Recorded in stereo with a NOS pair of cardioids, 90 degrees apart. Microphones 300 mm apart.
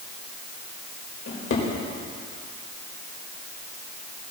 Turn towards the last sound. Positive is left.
turn(degrees=50)